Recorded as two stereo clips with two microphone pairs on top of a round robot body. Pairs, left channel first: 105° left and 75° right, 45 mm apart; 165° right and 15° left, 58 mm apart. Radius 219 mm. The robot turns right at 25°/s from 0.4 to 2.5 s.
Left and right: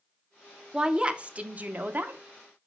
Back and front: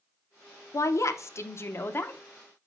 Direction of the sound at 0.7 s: 150° right.